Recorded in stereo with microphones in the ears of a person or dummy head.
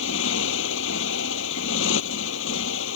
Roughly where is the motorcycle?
Left.